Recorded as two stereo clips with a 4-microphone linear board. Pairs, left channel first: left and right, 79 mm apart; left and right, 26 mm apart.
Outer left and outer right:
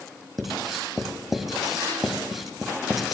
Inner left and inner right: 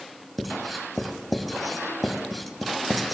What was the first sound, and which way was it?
Writing, centre (ahead or behind).